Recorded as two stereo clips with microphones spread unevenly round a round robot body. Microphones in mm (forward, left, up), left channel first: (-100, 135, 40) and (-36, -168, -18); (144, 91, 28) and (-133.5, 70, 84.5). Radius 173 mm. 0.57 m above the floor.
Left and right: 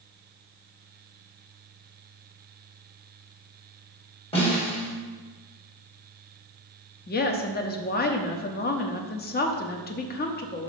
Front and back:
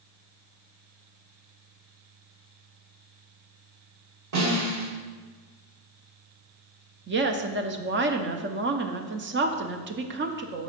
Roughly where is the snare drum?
Behind.